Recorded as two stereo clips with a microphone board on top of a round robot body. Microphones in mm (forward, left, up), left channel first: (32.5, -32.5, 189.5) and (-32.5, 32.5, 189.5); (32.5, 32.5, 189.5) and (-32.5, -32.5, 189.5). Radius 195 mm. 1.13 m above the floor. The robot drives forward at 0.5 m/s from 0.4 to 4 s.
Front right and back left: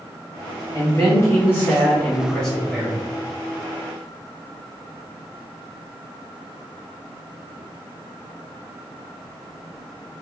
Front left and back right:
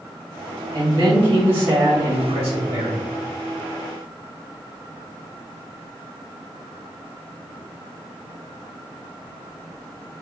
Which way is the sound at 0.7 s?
95° right.